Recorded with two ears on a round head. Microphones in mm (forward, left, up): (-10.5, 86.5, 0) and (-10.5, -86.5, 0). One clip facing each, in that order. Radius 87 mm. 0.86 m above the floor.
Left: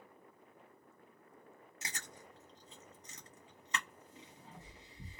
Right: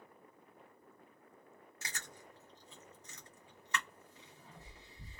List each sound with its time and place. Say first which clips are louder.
1.8 s chewing: even; 15° left (ahead or behind), 1.2 m